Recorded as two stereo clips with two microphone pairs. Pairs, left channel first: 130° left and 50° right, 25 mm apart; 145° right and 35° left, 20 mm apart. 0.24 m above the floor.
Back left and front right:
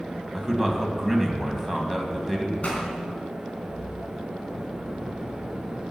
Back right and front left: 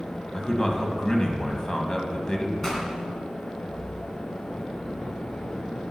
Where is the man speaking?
145° right, 1.8 m.